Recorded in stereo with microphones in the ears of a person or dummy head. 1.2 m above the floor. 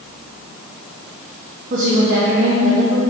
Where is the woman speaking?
35° right (ahead or behind), 1.2 m; by 3.0 s 75° right (ahead or behind), 2 m.